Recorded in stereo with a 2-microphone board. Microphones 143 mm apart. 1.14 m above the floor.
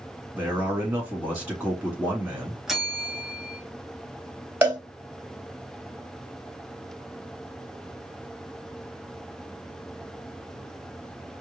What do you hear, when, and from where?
0.3 s a man speaking: 10° right (ahead or behind), 2.5 m
2.7 s a bell: 5° right (ahead or behind), 1.4 m
4.6 s a cowbell: 15° right (ahead or behind), 1.9 m